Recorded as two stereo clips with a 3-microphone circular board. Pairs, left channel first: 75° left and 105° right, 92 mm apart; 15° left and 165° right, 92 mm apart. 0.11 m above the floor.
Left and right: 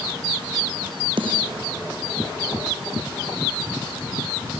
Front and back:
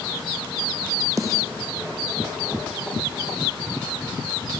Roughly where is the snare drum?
Behind right.